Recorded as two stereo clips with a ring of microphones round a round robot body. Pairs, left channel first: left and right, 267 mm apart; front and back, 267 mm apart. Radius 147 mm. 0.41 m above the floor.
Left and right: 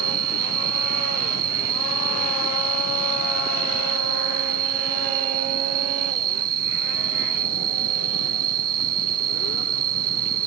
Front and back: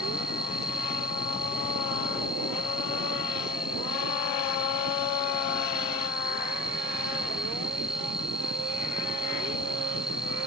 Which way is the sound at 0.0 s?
90° right.